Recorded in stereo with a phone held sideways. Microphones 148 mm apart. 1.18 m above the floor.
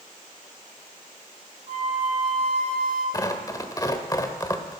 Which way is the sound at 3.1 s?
25° left (ahead or behind).